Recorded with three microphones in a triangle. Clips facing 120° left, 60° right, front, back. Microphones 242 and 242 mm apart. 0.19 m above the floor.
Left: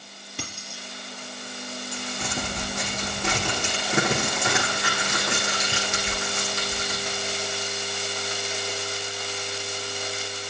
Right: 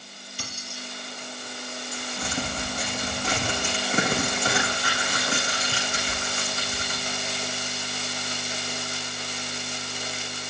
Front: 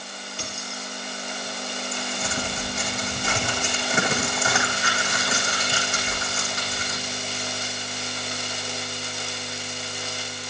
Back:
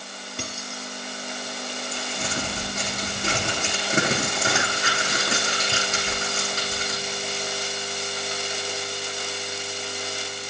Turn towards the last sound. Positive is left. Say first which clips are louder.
# right 1 dB, even
turn(degrees=130)